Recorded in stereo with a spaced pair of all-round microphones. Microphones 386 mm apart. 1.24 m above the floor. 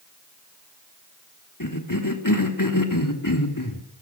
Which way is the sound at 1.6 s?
55° left (ahead or behind).